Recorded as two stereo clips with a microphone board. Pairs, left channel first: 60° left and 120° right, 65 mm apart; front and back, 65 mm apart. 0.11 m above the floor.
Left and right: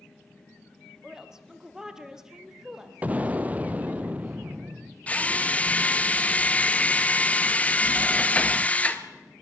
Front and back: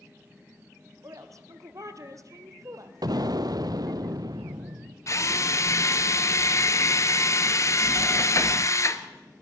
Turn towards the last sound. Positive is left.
turn(degrees=0)